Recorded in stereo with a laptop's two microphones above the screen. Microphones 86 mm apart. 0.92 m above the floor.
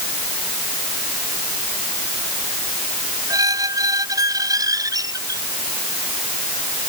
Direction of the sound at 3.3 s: 45° right (ahead or behind).